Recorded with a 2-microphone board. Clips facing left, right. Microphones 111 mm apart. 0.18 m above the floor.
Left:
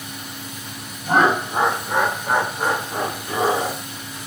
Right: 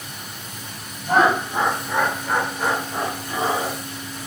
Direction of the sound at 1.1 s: 45° left (ahead or behind).